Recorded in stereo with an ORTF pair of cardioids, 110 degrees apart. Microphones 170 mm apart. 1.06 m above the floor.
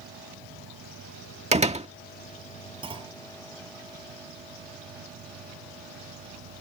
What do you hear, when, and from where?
0.0 s an insect: 65° right
1.5 s a door slam: 40° right
2.8 s a clunk: 30° right